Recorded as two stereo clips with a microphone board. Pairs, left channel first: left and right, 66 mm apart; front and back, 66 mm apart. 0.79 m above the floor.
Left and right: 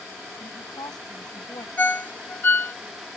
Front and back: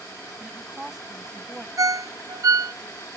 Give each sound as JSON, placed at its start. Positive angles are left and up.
{"t": 0.4, "sound": "a woman speaking", "azimuth_deg": 95}
{"t": 1.8, "sound": "a ringtone", "azimuth_deg": 150}